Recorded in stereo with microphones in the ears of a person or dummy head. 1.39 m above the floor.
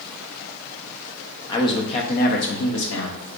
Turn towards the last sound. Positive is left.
turn(degrees=85)